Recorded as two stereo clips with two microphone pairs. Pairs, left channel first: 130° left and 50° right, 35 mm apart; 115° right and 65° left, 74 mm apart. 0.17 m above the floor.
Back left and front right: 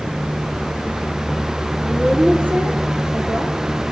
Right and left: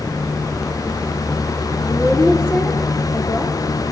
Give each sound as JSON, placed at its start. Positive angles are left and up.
{"t": 1.8, "sound": "a woman speaking", "azimuth_deg": -55, "distance_m": 6.5}